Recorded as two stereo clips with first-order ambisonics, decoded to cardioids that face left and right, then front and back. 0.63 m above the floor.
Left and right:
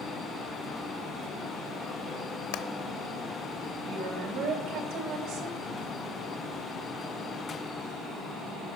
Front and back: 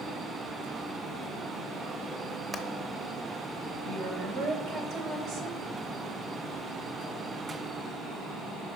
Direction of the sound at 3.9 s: 130° right.